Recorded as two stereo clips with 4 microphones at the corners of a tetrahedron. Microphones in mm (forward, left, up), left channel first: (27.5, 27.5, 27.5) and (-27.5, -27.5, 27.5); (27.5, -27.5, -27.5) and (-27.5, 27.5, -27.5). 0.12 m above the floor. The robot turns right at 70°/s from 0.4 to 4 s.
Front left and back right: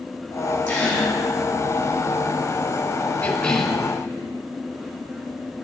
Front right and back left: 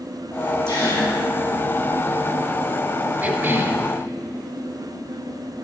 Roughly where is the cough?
Left.